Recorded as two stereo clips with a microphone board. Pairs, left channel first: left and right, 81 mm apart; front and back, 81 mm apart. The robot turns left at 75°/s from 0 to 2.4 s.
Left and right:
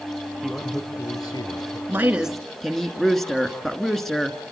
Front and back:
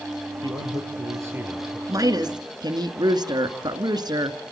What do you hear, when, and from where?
0.4 s a man speaking: 175° right, 3.5 m; by 1.8 s 85° left, 3.5 m
1.9 s a woman speaking: 145° right, 2 m; by 4.4 s 175° left, 2 m